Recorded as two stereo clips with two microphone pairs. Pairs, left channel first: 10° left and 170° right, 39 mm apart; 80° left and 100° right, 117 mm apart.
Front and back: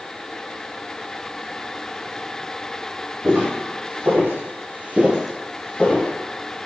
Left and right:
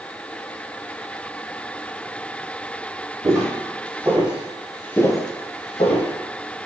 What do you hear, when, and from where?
3.2 s footsteps: 160° right, 1.3 m; by 6.1 s 65° left, 0.8 m